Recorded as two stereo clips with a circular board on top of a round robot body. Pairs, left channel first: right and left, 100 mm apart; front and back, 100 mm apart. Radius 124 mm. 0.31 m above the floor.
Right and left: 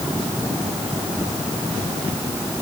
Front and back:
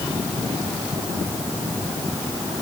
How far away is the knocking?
I don't hear knocking.